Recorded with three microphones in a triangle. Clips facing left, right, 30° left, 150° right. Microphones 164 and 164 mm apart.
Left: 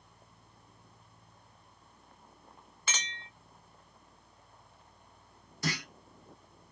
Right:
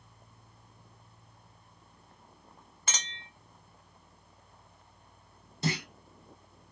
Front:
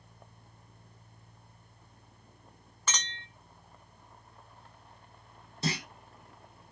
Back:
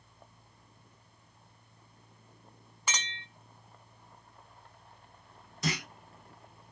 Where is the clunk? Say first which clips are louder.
Right 3 dB, even; 30° right, 0.6 m.